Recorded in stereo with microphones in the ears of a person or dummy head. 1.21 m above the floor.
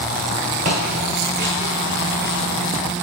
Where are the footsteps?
25° right (ahead or behind), 1.3 m; by 2.4 s 20° right (ahead or behind), 1.5 m.